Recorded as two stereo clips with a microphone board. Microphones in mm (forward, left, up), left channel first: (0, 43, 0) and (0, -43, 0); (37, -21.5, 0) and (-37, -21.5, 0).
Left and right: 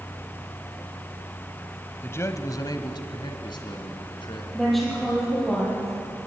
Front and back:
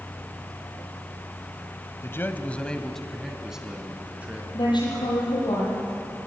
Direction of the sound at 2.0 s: 35° left.